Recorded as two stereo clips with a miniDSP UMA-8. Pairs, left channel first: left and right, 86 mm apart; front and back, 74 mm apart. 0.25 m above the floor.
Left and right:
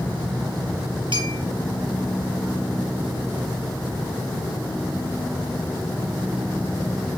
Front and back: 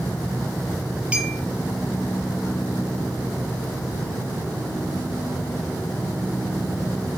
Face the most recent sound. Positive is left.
turn(degrees=-105)